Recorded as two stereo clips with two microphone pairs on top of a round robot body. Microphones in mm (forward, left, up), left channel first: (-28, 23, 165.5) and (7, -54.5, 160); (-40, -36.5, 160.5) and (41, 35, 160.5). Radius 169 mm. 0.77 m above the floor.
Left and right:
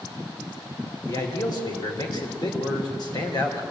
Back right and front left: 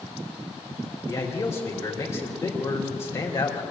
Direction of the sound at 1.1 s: 155° left.